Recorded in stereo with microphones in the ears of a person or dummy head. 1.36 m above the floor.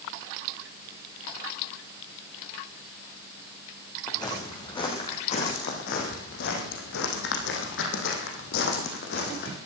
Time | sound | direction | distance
4.1 | footsteps | 25° left (ahead or behind) | 3.5 m